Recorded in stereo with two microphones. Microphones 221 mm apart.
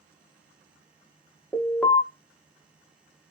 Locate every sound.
1.5 s an alarm: 5° left (ahead or behind), 1.2 m